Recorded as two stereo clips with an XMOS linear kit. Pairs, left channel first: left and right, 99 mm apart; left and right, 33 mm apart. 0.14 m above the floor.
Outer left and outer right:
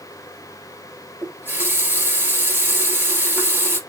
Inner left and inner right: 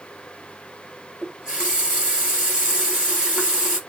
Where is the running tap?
20° right (ahead or behind), 1.6 m.